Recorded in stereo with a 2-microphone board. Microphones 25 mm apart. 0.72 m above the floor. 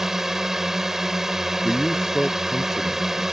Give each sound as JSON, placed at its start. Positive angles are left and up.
{"t": 0.0, "sound": "a drone", "side_deg": -15}
{"t": 1.6, "sound": "a man speaking", "side_deg": 20}